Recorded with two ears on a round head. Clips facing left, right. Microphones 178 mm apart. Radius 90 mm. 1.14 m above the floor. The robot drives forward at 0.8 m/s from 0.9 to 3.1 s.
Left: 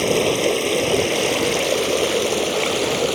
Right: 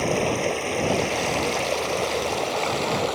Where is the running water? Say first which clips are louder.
Left 5 dB; 45° left (ahead or behind); by 3.2 s 40° left (ahead or behind).